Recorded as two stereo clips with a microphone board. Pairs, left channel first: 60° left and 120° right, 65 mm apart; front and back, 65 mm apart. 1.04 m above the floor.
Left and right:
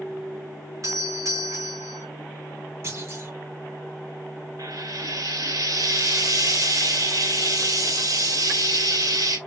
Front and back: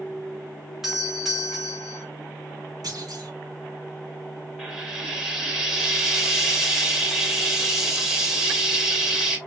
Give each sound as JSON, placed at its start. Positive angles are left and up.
{"t": 0.8, "sound": "a doorbell", "azimuth_deg": -95, "distance_m": 2.0}
{"t": 2.8, "sound": "a clunk", "azimuth_deg": -165, "distance_m": 1.9}
{"t": 4.6, "sound": "frying", "azimuth_deg": -100, "distance_m": 2.0}